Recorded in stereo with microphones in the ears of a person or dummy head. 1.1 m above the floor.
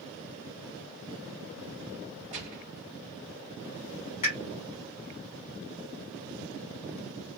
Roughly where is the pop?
Left.